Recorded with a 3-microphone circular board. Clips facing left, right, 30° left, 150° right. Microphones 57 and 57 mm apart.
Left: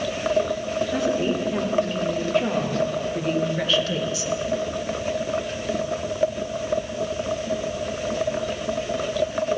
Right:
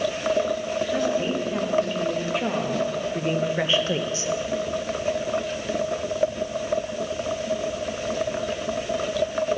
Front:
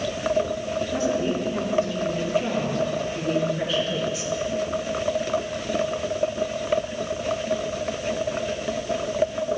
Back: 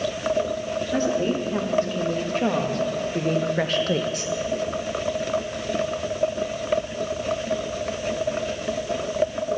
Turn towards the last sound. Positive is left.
turn(degrees=-130)